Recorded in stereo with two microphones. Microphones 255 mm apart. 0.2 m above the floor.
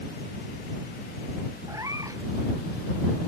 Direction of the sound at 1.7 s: 15° right (ahead or behind).